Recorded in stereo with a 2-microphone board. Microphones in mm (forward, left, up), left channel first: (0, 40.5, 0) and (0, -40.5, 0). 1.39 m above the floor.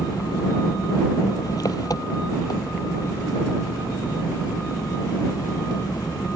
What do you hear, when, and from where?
0.0 s an engine running: 55° left (ahead or behind)